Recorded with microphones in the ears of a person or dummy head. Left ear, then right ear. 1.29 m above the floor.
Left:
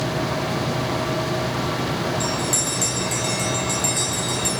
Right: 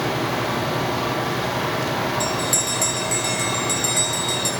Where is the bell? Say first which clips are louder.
Right 1 dB; 15° right (ahead or behind), 2.5 m.